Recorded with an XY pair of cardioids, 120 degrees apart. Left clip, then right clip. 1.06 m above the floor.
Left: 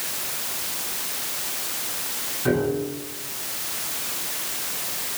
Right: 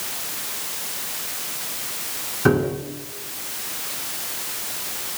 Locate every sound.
2.5 s a piano: 60° right, 10 m